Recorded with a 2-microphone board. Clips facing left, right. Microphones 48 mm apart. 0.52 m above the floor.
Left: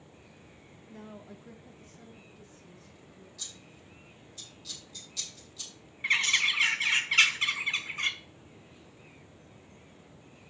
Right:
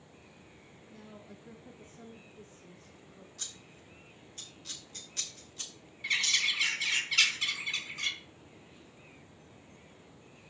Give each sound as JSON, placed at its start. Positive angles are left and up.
{"t": 0.9, "sound": "a woman speaking", "side_deg": 40, "distance_m": 0.9}
{"t": 3.4, "sound": "scissors", "side_deg": -45, "distance_m": 2.0}
{"t": 6.0, "sound": "a bird", "side_deg": 35, "distance_m": 1.0}